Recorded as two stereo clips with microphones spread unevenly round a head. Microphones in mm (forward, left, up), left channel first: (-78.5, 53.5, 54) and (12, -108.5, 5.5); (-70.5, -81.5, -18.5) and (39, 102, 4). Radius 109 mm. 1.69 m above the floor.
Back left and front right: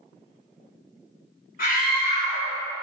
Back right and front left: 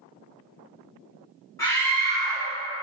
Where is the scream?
165° left, 2.5 m.